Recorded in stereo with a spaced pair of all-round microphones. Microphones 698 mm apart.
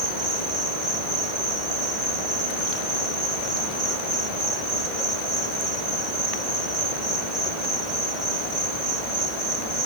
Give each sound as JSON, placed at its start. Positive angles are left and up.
{"t": 0.0, "sound": "an insect", "side_deg": -70}